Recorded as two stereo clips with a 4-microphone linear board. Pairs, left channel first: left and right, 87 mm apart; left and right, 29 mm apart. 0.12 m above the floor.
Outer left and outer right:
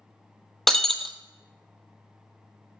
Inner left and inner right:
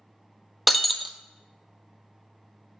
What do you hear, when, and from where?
0.7 s breaking glass: 5° left (ahead or behind), 0.6 m